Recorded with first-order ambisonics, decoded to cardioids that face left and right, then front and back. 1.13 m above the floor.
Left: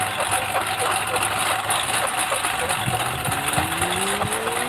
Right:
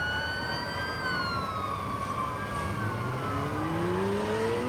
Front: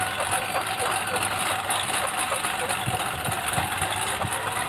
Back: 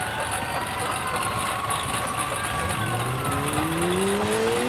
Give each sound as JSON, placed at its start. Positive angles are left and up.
{"t": 0.0, "sound": "a lawn mower", "azimuth_deg": 75}